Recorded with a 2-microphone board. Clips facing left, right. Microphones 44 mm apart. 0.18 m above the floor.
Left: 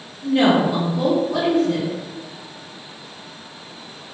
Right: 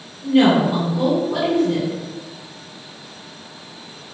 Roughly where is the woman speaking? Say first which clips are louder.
Right 2 dB; right.